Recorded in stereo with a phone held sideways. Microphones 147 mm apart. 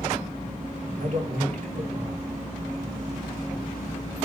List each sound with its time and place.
1.0 s a man speaking: 60° right (ahead or behind), 3.5 m